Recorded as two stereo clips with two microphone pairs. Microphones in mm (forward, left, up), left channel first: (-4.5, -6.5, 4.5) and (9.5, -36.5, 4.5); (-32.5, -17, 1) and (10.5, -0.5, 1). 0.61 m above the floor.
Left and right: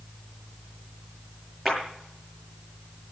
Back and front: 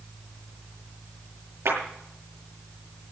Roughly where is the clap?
Ahead left.